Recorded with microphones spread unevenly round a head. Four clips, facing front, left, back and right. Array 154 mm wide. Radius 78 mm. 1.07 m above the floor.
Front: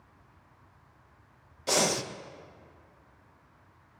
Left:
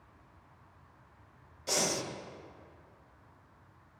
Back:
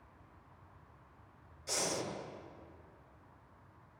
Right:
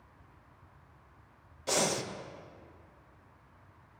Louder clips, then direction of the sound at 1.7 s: Right 3 dB, front 10 dB; 10° right.